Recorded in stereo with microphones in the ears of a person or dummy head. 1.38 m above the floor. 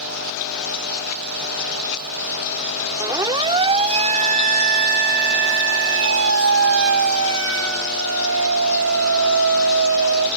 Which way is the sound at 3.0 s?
20° right (ahead or behind).